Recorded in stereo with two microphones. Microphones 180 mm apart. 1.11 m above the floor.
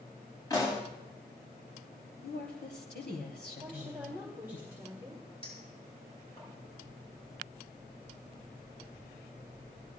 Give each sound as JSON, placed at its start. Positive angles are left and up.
{"t": 0.5, "sound": "a pop", "side_deg": 20, "distance_m": 6.5}
{"t": 2.2, "sound": "a woman speaking", "side_deg": 80, "distance_m": 3.0}
{"t": 3.6, "sound": "a woman speaking", "side_deg": -10, "distance_m": 2.0}
{"t": 5.4, "sound": "a clink", "side_deg": 35, "distance_m": 6.5}